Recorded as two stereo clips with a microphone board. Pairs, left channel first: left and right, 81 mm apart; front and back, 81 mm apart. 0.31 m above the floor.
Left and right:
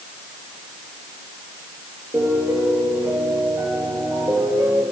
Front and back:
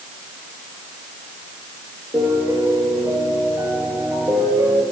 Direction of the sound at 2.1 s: 120° right.